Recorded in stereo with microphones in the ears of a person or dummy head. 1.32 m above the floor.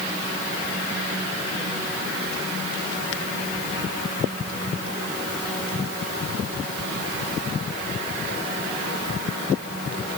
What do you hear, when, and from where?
Only background noise.